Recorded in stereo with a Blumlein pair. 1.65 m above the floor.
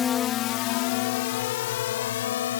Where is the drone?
20° left; by 2.6 s 60° left.